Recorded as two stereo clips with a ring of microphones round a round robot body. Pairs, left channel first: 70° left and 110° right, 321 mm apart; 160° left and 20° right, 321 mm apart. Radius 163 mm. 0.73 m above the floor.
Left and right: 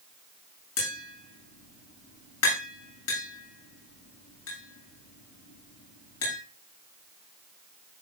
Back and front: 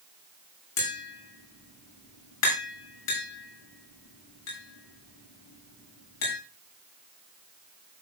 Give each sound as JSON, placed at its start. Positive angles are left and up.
{"t": 0.8, "sound": "tapping", "azimuth_deg": 115, "distance_m": 8.5}